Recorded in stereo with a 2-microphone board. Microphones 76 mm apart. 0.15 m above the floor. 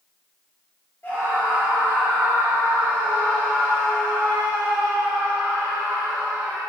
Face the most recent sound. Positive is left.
turn(degrees=-5)  # may be behind; listen again after turning